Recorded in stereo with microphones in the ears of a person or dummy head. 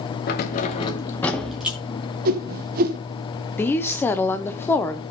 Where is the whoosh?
45° right (ahead or behind), 1.2 m.